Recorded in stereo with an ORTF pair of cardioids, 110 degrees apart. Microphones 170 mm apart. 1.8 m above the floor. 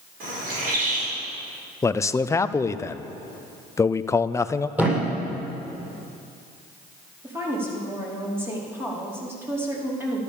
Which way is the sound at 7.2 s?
15° right.